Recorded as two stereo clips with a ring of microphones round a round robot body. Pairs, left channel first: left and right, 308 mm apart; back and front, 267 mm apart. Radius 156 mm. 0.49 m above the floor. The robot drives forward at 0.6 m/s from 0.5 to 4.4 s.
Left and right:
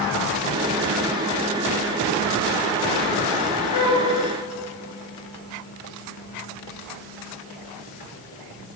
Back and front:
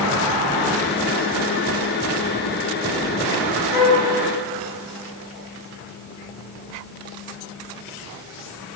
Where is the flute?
125° left, 3 m.